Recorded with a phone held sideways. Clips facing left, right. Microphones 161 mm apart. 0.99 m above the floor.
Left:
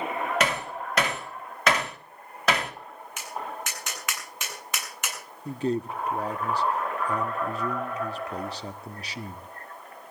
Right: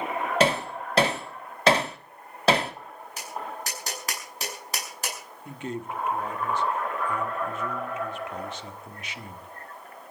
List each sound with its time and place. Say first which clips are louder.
0.4 s hammering: right 4 dB; 30° right (ahead or behind), 2 m
3.2 s tapping: even; 35° right (ahead or behind), 7.5 m
5.5 s a man speaking: left 7 dB; 35° left (ahead or behind), 1.6 m